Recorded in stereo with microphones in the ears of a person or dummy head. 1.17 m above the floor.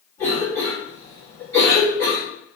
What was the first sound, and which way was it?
A cough, 15° left (ahead or behind).